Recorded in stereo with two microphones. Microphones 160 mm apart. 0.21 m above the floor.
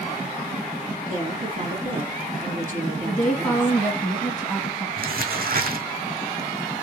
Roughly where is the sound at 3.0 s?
Centre.